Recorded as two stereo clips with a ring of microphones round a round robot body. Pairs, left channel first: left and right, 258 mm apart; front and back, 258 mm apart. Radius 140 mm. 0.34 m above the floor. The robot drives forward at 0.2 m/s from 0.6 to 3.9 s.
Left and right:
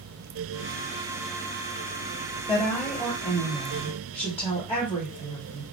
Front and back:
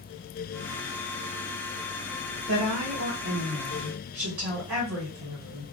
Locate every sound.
2.5 s a woman speaking: 170° left, 1.7 m